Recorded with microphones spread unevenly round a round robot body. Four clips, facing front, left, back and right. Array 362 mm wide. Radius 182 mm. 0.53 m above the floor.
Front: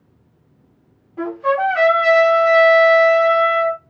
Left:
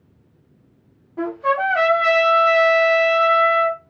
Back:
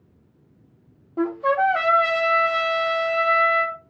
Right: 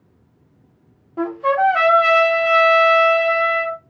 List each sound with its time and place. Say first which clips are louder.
1.2 s a trumpet: right 3 dB, front 2 dB; 165° right, 0.9 m